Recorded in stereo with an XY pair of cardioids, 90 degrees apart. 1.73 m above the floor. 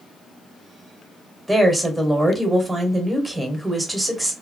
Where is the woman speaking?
5° right, 1.2 m.